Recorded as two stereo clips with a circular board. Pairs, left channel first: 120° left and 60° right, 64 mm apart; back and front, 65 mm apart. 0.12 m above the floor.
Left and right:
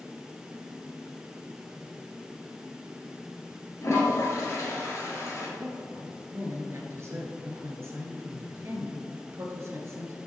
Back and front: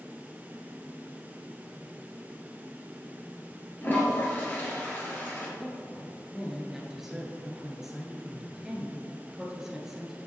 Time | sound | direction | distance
3.8 | a toilet flushing | 130° left | 2 m
5.6 | a woman speaking | 80° right | 1.6 m